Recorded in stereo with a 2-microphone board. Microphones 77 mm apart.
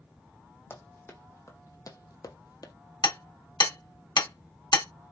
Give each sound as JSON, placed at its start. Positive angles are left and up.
{"t": 0.7, "sound": "running footsteps", "side_deg": 30, "distance_m": 1.3}
{"t": 3.0, "sound": "hammering", "side_deg": 75, "distance_m": 1.3}